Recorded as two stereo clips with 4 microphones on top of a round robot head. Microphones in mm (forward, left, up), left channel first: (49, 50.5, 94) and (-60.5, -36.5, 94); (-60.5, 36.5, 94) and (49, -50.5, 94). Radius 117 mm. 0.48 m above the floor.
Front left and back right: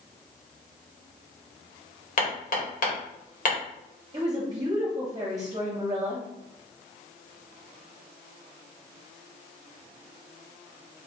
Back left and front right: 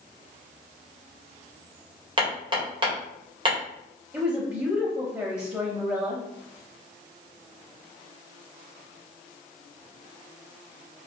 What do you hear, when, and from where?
2.2 s hammering: 15° left, 1.6 m
4.1 s a woman speaking: 100° right, 1.0 m